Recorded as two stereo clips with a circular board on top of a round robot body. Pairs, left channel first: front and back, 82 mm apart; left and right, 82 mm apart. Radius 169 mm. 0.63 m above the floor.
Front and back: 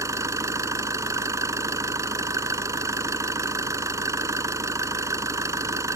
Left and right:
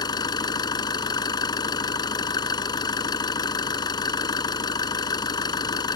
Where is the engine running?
125° left.